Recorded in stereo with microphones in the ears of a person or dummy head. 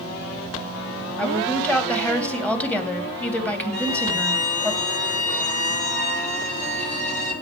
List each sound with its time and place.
1.2 s a woman speaking: 10° left (ahead or behind), 3 m
3.7 s a violin: 55° left (ahead or behind), 8.5 m